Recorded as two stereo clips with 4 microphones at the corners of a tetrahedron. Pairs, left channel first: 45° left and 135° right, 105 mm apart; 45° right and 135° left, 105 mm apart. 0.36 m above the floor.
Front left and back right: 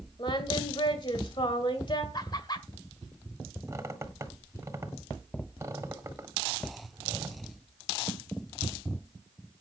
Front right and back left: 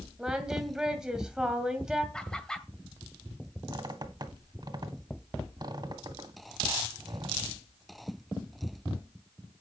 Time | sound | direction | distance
0.2 | singing | 55° left | 2 m
2.1 | laughter | 35° left | 1.7 m
3.7 | a squeak | 170° left | 1.6 m